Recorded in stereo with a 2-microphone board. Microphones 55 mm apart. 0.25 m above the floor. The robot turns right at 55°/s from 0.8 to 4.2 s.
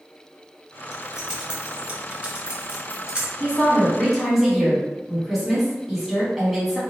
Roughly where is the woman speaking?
Behind left.